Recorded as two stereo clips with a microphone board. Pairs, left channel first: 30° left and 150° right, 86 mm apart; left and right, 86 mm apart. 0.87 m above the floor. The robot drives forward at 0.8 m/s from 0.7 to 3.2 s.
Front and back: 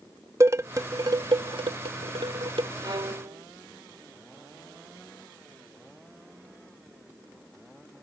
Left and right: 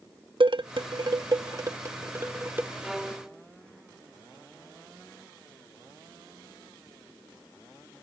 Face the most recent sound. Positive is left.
turn(degrees=-175)